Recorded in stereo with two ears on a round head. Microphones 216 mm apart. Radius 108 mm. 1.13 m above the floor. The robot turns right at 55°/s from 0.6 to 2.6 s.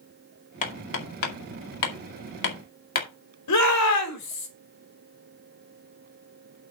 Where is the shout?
85° left, 3.5 m.